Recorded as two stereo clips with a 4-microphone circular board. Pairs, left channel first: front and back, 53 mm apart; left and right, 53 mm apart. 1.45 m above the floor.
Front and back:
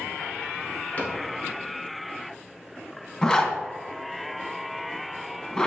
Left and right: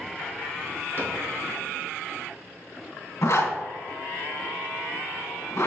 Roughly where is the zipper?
Left.